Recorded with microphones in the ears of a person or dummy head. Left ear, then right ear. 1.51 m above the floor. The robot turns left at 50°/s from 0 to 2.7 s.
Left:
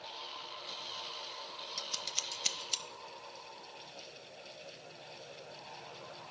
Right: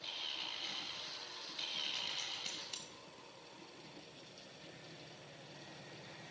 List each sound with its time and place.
1.8 s scissors: 75° left (ahead or behind), 0.8 m; by 2.8 s 30° left (ahead or behind), 0.8 m